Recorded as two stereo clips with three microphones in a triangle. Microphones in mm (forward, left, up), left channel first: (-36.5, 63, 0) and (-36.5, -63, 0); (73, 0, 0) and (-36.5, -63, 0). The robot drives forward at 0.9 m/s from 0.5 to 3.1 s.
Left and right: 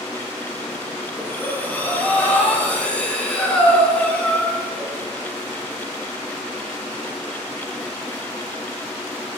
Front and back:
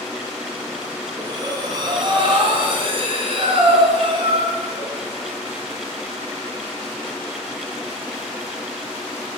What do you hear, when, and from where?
1.2 s breathing: 160° left, 2.5 m; by 4.9 s 170° left, 4 m